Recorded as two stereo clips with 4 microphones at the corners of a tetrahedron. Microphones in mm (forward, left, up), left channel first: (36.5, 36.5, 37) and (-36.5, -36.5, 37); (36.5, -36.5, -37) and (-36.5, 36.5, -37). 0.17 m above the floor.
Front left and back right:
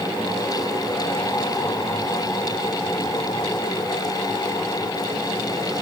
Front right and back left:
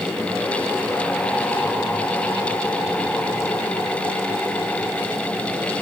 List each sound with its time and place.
Only background noise.